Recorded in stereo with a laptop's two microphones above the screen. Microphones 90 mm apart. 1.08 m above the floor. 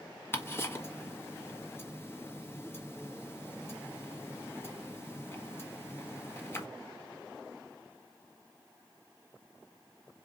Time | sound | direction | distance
0.3 | ticking | 25° left (ahead or behind) | 1.3 m